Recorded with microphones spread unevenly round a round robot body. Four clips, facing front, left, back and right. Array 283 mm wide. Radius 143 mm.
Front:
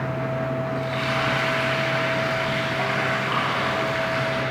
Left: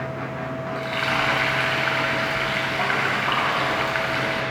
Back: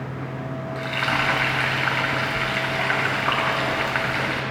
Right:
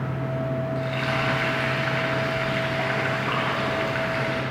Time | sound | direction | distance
0.8 | frying | 160° left | 2.5 m